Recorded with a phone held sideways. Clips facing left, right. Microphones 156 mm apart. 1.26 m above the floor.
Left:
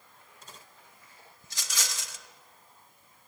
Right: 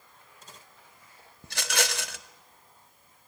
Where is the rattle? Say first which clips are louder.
Right 11 dB; 75° right (ahead or behind), 1.0 m.